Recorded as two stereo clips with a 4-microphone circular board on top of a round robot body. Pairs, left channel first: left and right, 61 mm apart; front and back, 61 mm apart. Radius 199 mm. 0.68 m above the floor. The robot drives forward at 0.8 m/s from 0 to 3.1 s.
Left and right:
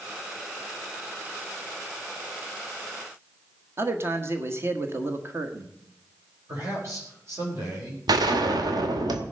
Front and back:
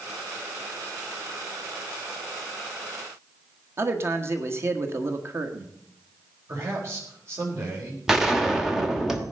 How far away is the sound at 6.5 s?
About 4.5 m.